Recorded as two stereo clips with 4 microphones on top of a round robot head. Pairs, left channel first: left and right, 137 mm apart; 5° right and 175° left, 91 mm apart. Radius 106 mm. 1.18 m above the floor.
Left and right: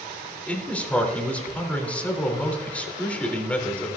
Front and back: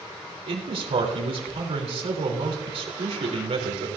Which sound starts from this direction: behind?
A man speaking, at 0.5 s.